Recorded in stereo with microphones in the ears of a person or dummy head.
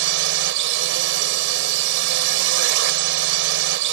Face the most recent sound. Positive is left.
turn(degrees=-65)  # may be behind; listen again after turning